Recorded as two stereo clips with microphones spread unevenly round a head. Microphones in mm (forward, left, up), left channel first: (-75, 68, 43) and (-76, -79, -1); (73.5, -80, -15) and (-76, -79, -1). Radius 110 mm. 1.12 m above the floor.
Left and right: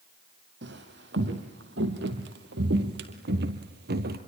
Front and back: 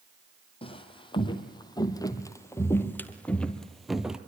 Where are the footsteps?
55° right, 3 m; by 4.2 s 100° right, 2 m.